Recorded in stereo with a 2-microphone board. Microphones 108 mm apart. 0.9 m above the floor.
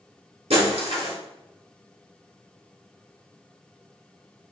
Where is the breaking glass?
70° right (ahead or behind), 1.4 m.